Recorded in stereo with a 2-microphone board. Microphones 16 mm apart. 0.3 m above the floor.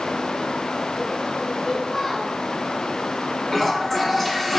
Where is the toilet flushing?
15° left (ahead or behind), 2 m.